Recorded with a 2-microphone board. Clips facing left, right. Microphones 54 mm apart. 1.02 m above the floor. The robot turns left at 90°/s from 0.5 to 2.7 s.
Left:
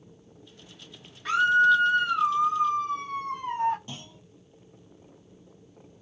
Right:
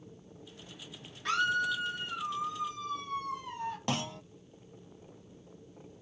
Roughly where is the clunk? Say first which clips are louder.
Right 10 dB; right.